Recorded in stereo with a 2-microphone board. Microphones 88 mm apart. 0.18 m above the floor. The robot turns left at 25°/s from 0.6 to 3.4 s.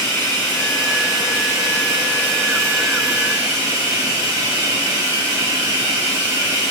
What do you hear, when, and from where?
0.0 s running water: 20° left, 1.3 m; by 6.7 s 50° right, 1.3 m